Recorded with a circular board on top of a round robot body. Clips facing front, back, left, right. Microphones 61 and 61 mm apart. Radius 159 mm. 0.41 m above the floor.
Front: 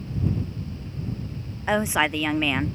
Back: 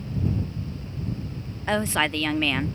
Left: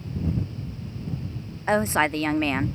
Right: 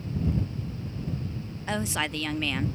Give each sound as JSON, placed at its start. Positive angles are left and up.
{"t": 1.7, "sound": "a woman speaking", "azimuth_deg": 70}